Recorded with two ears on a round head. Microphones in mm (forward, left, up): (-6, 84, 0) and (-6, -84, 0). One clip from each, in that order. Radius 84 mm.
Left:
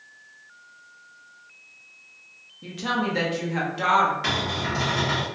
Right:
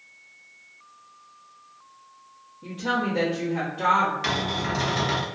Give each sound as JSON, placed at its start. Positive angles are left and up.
{"t": 2.6, "sound": "a woman speaking", "side_deg": 40, "distance_m": 0.8}
{"t": 4.2, "sound": "a cupboard door", "side_deg": -15, "distance_m": 0.8}